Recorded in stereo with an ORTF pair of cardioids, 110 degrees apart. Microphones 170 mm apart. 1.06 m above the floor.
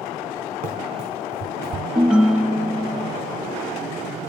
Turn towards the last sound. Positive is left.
turn(degrees=-5)